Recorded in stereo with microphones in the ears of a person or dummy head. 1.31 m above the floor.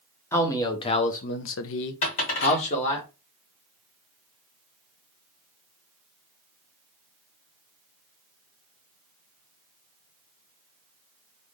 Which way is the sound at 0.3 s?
20° left (ahead or behind).